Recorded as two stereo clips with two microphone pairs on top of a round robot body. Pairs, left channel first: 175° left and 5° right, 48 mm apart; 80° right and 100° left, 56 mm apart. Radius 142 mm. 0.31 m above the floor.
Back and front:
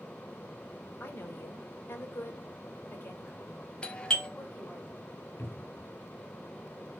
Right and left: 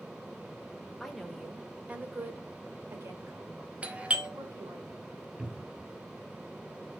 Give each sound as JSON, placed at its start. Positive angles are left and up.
{"t": 1.0, "sound": "a woman speaking", "azimuth_deg": -170, "distance_m": 1.9}
{"t": 3.8, "sound": "a doorbell", "azimuth_deg": 125, "distance_m": 1.9}
{"t": 5.4, "sound": "a cupboard door", "azimuth_deg": 165, "distance_m": 1.0}